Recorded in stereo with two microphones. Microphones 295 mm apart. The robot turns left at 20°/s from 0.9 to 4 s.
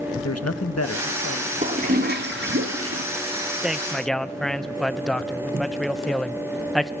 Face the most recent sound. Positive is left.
turn(degrees=0)  # may be behind; listen again after turning